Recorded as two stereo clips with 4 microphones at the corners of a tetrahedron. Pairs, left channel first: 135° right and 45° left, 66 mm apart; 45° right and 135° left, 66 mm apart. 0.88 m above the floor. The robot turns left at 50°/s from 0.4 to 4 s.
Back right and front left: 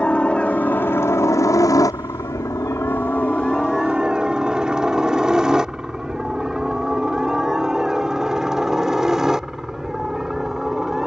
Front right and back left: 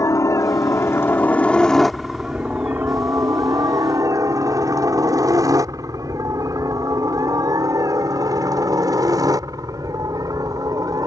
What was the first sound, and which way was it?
A helicopter, 65° right.